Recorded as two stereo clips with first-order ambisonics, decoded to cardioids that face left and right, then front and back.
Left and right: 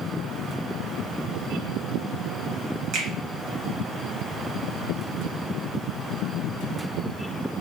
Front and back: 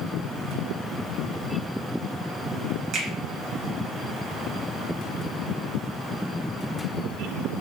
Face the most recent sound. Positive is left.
turn(degrees=-130)